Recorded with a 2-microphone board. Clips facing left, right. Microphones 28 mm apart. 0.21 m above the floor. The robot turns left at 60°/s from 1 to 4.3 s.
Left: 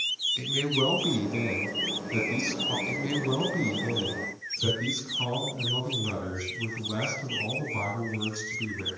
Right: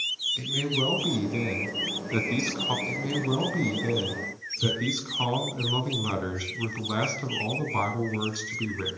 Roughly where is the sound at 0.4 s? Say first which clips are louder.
Left 1 dB; ahead.